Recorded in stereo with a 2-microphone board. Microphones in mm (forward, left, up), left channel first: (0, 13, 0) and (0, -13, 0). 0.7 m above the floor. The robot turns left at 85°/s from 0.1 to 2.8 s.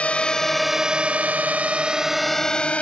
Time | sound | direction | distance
0.0 | a drone | 55° left (ahead or behind) | ?